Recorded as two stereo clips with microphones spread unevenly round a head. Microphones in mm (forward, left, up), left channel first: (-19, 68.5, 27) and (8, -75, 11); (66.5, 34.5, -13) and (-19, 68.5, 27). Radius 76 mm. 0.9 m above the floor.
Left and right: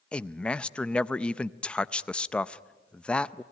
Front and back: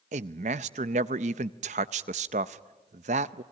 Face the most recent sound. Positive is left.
turn(degrees=-175)